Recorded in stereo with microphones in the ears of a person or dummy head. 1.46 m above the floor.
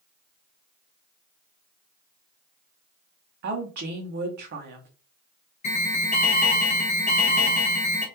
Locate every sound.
3.4 s a woman speaking: 45° right (ahead or behind), 0.6 m
5.6 s an alarm: 40° left (ahead or behind), 0.8 m